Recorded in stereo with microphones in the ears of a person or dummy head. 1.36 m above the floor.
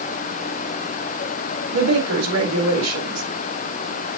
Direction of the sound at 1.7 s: 85° right.